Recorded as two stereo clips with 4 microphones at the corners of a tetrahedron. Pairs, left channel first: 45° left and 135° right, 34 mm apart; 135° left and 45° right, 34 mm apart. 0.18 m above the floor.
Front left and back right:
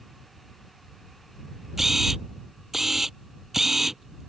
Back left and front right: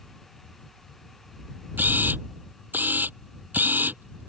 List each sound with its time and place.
1.8 s a camera shutter: 55° right